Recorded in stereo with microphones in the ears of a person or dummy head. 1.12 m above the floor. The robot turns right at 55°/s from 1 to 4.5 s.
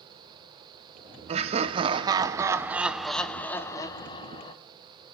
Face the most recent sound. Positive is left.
turn(degrees=25)  # may be behind; listen again after turning